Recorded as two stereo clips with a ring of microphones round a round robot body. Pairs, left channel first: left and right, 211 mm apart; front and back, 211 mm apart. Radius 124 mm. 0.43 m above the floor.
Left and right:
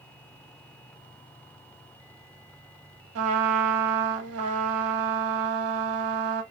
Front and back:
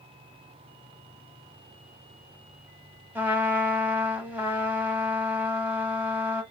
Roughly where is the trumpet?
Right.